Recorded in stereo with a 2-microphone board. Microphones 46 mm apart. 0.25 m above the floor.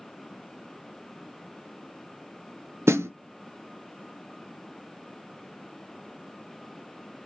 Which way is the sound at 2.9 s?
75° right (ahead or behind).